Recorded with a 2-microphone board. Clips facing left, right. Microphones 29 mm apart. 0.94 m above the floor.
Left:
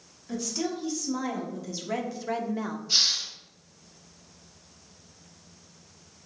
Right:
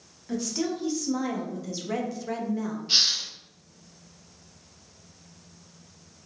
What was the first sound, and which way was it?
A woman speaking, 15° right (ahead or behind).